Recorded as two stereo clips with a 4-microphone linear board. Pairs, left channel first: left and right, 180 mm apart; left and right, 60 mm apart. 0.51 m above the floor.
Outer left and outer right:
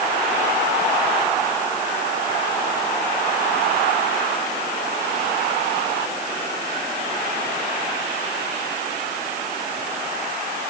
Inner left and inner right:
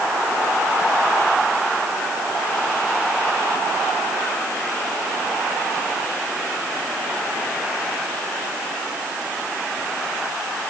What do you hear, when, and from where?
Only background noise.